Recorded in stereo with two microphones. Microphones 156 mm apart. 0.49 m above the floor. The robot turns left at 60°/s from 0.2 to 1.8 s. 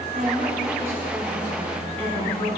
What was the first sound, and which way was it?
A woman speaking, 120° right.